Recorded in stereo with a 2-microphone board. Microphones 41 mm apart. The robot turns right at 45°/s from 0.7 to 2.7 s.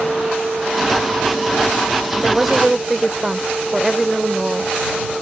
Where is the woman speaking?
15° right (ahead or behind); by 4.7 s 10° right (ahead or behind).